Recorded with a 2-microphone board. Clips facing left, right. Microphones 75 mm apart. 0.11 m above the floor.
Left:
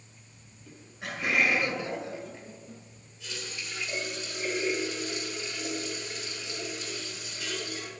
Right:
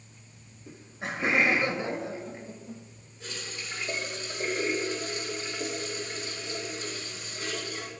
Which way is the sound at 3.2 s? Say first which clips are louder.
Right 1 dB; 40° right (ahead or behind).